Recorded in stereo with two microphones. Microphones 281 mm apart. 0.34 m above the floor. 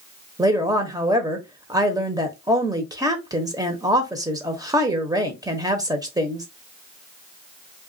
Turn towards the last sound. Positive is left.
turn(degrees=-15)  # may be behind; listen again after turning